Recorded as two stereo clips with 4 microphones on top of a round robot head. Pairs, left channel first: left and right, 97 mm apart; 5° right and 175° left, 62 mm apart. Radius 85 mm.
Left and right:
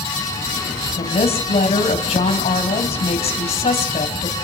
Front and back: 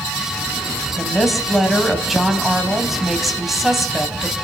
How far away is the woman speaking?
About 3 m.